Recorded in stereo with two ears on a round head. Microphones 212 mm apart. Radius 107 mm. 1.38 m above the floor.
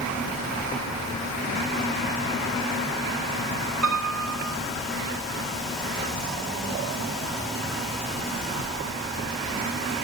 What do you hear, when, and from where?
3.8 s a piano: 65° right (ahead or behind), 6.5 m